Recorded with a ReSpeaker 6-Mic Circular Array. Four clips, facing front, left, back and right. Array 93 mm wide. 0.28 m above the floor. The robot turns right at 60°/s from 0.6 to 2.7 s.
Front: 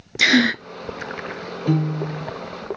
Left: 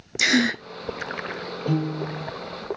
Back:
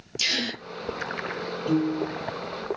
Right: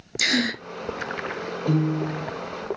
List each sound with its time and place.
0.2 s a gasp: 15° left, 0.7 m
1.7 s a piano: 5° right, 4 m; by 2.3 s 30° left, 4 m